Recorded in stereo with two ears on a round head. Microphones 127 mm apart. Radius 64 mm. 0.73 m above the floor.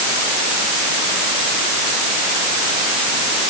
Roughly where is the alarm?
I don't hear an alarm.